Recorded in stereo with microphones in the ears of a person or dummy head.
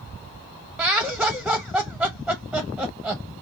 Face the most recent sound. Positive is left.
turn(degrees=-5)  # may be behind; listen again after turning